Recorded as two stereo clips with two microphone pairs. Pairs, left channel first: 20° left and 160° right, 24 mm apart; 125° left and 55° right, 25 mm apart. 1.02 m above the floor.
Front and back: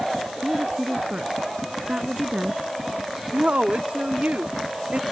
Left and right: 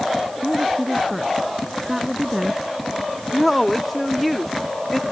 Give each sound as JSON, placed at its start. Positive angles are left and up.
{"t": 0.4, "sound": "a woman speaking", "azimuth_deg": -140}
{"t": 3.3, "sound": "a woman speaking", "azimuth_deg": -150}